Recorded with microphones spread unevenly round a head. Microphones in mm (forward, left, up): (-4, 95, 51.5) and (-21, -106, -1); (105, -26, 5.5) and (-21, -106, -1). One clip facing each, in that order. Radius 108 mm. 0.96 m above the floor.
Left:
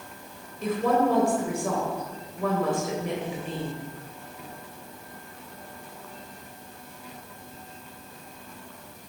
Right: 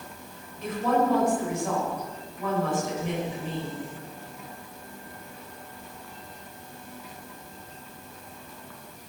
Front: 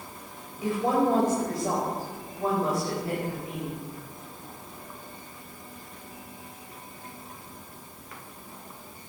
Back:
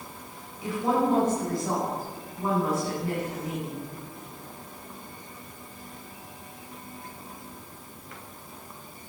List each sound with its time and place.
0.6 s a woman speaking: 100° left, 4.5 m